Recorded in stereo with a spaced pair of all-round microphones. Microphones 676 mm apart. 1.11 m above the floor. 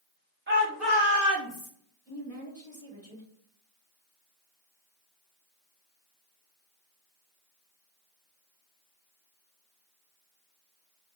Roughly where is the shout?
Centre.